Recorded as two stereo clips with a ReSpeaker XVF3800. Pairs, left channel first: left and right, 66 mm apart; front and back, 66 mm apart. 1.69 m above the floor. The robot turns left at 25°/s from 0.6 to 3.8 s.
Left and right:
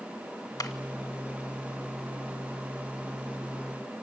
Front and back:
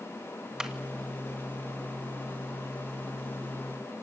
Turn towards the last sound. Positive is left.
turn(degrees=25)